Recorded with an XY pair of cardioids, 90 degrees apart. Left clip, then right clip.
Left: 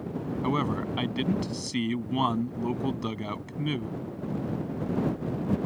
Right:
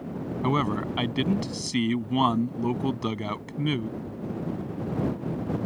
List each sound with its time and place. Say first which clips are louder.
0.4 s a man speaking: right 3 dB; 25° right